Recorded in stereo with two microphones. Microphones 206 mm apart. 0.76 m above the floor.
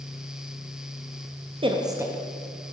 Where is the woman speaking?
25° right (ahead or behind), 0.6 m; by 2.7 s 5° left (ahead or behind), 0.9 m.